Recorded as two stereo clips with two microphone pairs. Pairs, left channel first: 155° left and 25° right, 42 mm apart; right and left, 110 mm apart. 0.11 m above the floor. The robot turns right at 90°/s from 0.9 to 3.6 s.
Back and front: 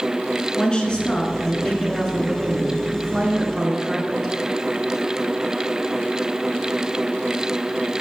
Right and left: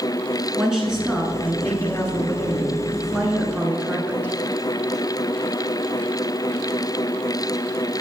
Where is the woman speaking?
170° left, 1.1 m; by 4.3 s 55° left, 1.1 m.